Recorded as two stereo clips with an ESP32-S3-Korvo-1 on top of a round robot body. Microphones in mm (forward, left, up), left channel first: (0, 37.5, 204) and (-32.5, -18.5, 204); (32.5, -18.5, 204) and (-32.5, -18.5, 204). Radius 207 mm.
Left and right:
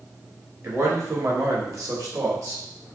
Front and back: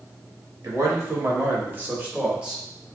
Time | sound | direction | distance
0.6 | a man speaking | 165° right | 1.3 m